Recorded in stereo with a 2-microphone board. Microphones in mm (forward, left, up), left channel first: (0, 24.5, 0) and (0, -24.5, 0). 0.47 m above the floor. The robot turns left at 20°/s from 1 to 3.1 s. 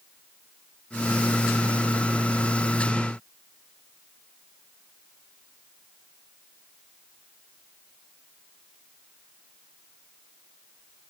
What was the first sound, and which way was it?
Only background noise.